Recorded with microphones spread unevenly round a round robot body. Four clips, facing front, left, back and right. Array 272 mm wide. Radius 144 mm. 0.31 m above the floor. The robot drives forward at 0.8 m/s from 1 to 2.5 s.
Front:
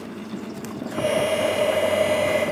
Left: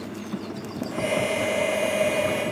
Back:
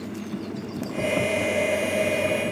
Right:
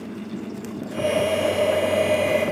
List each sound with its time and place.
Only background noise.